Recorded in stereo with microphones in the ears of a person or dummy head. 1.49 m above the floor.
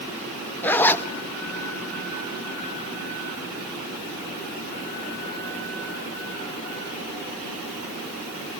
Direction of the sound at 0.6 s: 10° left (ahead or behind).